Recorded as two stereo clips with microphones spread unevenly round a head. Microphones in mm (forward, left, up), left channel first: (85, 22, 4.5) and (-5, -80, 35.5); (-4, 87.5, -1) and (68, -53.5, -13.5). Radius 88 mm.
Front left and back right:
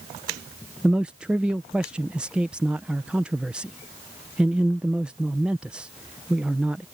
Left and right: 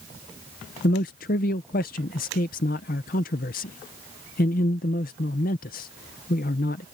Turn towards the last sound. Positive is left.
turn(degrees=135)